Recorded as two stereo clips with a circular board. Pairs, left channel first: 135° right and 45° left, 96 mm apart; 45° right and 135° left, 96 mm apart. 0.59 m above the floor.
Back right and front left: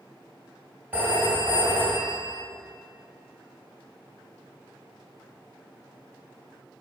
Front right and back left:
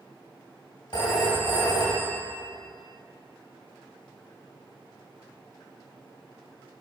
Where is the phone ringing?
25° right, 1.8 m.